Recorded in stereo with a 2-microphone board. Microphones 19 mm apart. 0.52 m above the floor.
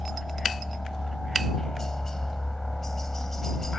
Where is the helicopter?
35° left (ahead or behind); by 3.8 s 25° left (ahead or behind).